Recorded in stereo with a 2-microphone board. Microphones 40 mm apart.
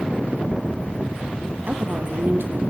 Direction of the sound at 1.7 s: 40° right (ahead or behind).